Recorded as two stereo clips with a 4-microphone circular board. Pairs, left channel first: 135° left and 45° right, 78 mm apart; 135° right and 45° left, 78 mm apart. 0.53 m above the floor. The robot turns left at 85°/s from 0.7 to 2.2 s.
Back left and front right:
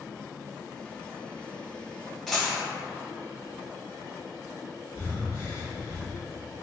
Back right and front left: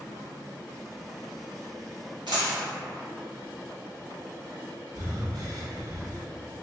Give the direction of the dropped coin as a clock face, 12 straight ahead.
11 o'clock.